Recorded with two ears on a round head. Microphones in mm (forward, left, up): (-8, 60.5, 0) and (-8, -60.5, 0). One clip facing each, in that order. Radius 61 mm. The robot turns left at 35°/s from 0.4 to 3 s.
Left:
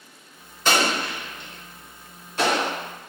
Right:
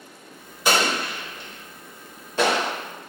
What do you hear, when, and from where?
0.7 s an explosion: 10° right (ahead or behind), 0.7 m; by 2.7 s 75° right (ahead or behind), 0.7 m